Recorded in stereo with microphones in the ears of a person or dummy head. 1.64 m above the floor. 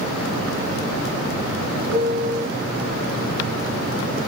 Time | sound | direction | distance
1.9 | a piano | 55° right (ahead or behind) | 1.0 m